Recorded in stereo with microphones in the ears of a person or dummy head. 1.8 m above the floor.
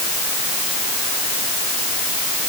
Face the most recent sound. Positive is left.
No sound to turn to.